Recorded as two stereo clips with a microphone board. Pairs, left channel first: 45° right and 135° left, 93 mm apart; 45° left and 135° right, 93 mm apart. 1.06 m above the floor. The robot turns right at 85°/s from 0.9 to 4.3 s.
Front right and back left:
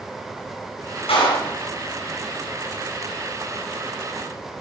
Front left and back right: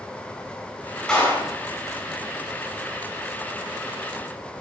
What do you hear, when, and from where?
1.1 s a clap: 35° right, 8 m; by 1.5 s straight ahead, 8 m